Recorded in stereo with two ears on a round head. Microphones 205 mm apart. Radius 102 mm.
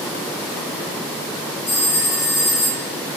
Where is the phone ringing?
65° left (ahead or behind), 6 m.